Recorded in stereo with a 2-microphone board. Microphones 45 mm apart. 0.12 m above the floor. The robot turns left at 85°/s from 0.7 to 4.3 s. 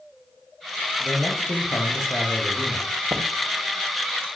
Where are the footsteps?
80° right, 1.2 m; by 3.2 s 70° right (ahead or behind), 1.2 m.